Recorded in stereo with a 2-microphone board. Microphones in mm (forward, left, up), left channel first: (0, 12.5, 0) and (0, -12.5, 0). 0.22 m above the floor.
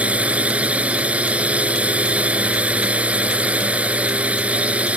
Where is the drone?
65° right (ahead or behind).